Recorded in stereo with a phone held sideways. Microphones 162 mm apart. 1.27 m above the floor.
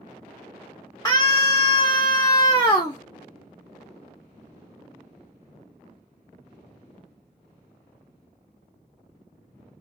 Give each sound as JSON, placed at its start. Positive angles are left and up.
{"t": 1.1, "sound": "a scream", "side_deg": 20, "distance_m": 0.6}